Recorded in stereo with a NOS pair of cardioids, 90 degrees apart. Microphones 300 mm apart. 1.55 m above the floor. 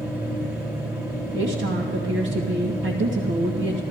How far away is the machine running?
About 2.5 m.